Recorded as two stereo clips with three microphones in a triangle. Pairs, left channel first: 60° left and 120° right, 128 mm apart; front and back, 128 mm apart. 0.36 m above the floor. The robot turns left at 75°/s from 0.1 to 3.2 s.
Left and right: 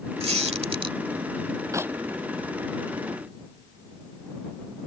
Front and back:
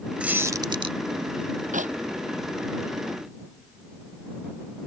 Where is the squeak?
100° right; by 1.0 s 160° right.